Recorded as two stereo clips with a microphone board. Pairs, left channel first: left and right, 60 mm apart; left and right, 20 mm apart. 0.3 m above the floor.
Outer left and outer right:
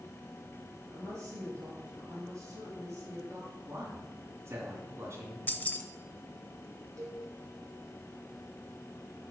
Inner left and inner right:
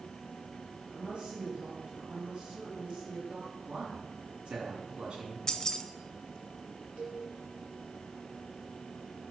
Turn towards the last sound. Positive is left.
turn(degrees=-75)  # may be behind; listen again after turning